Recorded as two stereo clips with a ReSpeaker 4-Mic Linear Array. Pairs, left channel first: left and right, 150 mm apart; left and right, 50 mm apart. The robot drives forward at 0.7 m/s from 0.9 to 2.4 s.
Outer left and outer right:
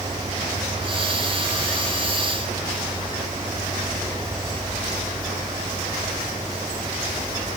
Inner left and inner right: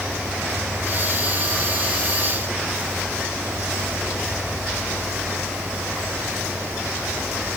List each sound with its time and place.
Only background noise.